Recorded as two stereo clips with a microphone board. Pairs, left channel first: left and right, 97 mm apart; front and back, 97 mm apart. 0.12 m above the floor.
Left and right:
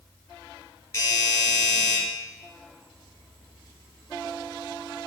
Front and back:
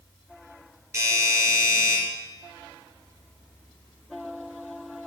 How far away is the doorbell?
About 2.5 m.